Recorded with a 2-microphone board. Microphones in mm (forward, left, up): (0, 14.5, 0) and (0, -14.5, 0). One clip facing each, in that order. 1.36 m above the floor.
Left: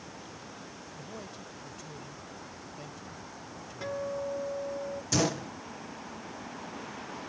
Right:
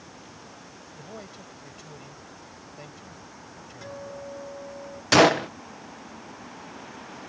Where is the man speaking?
20° right (ahead or behind).